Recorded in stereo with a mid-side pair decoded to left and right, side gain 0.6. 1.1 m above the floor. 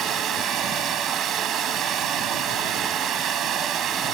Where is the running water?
55° right.